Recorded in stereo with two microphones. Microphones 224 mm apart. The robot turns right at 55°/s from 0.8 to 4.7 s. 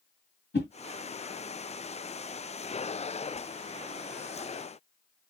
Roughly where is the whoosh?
Left.